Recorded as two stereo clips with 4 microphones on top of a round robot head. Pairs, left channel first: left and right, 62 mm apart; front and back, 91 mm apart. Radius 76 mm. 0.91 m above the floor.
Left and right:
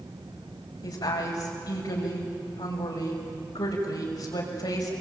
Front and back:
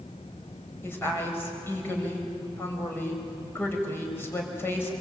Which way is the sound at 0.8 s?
65° left.